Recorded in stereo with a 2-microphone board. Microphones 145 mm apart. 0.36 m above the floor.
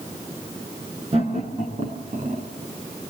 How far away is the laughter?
About 6 m.